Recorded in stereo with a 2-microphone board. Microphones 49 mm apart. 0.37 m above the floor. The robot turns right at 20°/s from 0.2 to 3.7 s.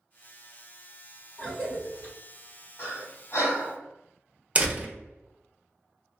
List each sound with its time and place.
1.4 s a cough: 15° left (ahead or behind), 1.5 m; by 2.1 s 20° left (ahead or behind), 1.5 m
2.8 s breathing: 60° left (ahead or behind), 1.2 m; by 3.8 s 70° left (ahead or behind), 1.2 m
4.5 s a door slam: 25° right (ahead or behind), 0.5 m